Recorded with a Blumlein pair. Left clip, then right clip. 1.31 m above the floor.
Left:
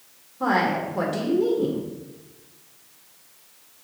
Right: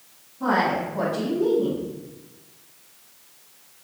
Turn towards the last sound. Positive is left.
turn(degrees=30)